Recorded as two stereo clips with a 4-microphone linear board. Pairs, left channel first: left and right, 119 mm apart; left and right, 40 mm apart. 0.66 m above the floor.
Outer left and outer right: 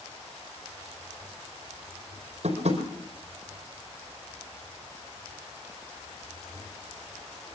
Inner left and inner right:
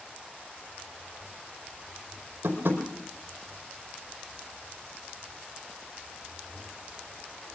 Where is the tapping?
60° right (ahead or behind), 4.5 m.